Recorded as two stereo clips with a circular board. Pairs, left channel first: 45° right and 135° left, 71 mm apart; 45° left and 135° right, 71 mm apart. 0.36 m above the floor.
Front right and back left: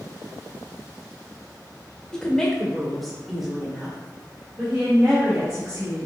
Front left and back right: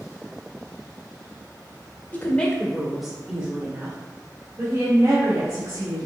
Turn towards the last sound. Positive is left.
turn(degrees=-155)